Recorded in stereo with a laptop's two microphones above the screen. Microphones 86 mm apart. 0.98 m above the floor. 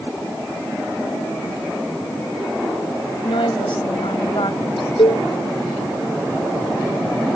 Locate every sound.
3.2 s a woman speaking: 75° left (ahead or behind)
5.0 s a cowbell: 80° left